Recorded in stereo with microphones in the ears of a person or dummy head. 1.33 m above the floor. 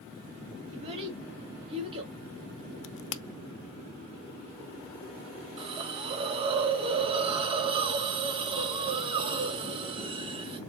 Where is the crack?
70° left (ahead or behind), 0.5 m.